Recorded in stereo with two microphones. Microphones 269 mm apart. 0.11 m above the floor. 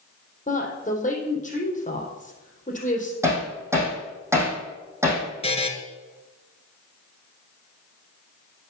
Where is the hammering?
10° right (ahead or behind), 4 m.